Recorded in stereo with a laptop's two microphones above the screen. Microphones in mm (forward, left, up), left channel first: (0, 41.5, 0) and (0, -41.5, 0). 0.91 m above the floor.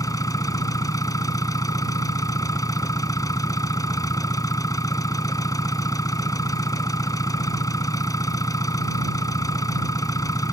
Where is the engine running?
50° left (ahead or behind).